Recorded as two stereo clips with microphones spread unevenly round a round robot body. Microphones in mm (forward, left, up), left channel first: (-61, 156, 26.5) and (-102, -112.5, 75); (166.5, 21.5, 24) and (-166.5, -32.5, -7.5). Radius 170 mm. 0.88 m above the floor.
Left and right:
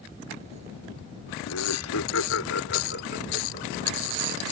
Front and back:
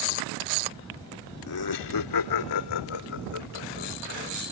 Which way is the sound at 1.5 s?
50° left.